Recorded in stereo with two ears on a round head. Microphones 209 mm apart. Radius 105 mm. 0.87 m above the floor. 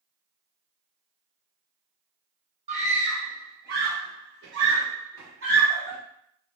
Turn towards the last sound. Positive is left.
turn(degrees=-45)  # may be behind; listen again after turning